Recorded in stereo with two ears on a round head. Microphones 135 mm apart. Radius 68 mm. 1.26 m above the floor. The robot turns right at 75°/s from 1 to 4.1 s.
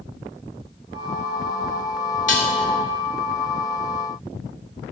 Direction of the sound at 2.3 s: 60° left (ahead or behind).